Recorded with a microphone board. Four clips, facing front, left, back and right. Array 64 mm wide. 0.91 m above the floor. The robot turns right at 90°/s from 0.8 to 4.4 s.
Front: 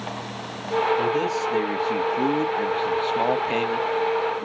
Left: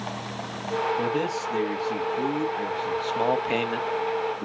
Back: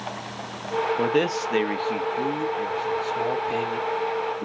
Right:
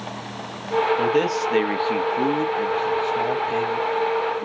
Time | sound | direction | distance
1.0 | a man speaking | 170° right | 1.1 m